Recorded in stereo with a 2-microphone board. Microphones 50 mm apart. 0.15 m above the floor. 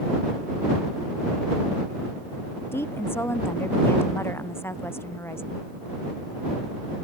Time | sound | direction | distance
2.7 | a woman speaking | 50° left (ahead or behind) | ?